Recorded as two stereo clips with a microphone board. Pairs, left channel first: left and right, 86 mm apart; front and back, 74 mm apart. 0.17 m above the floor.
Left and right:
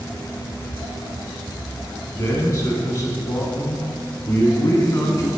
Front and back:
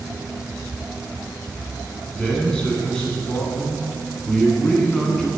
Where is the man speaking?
70° left, 1.4 m.